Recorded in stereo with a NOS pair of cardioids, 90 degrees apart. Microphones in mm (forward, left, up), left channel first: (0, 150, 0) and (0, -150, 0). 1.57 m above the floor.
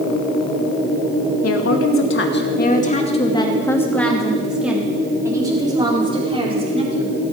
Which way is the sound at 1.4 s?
55° left.